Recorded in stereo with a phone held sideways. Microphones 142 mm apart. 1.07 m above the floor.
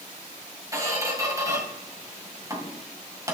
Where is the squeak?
20° right (ahead or behind), 3 m.